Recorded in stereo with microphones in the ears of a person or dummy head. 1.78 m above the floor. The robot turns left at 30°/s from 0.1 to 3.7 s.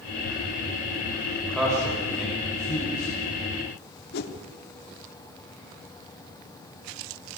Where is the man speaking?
Centre (ahead or behind), 6.5 m; by 3.1 s 50° left (ahead or behind), 6.5 m.